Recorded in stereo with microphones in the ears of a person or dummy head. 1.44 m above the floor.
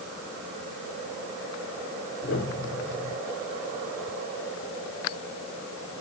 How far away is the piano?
About 4.5 m.